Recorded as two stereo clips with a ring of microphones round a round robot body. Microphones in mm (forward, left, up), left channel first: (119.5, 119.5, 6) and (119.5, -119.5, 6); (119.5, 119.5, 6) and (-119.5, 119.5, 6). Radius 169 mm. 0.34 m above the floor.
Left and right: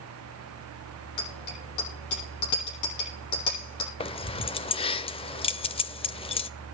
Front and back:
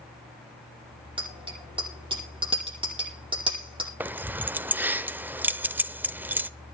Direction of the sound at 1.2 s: 110° left.